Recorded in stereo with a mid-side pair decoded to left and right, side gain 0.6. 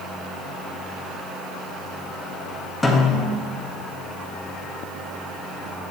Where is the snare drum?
10° left, 1.6 m.